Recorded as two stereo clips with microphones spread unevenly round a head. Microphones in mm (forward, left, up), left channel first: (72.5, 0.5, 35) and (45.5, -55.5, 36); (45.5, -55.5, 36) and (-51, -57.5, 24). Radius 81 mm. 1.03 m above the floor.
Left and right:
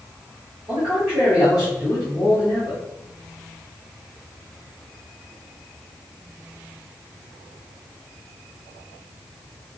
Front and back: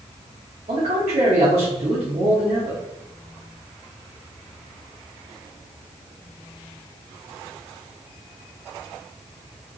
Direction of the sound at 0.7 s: 165° left.